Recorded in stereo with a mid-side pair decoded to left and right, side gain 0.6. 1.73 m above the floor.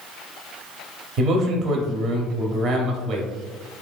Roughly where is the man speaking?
Ahead right.